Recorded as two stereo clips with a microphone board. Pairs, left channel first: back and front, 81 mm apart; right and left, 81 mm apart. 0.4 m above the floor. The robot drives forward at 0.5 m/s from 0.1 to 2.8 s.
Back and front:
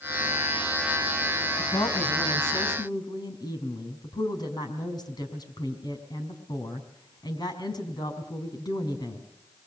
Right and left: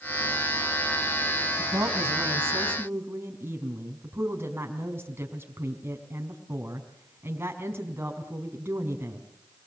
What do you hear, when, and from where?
1.6 s a woman speaking: 145° left, 4 m; by 9.2 s 150° left, 4.5 m